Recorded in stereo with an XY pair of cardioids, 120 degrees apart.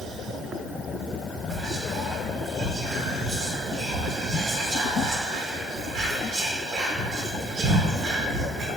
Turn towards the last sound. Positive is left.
turn(degrees=-60)